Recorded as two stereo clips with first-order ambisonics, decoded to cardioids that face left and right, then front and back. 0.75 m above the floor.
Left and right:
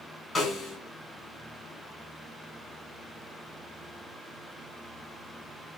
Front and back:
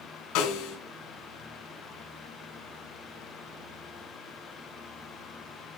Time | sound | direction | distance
0.3 | a snare drum | 15° left | 3 m